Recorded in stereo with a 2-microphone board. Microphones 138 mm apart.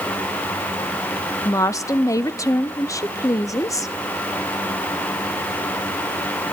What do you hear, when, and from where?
1.4 s a woman speaking: 20° left (ahead or behind), 0.6 m